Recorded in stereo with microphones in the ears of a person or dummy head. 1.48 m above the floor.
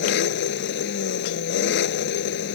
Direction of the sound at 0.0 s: 60° left (ahead or behind).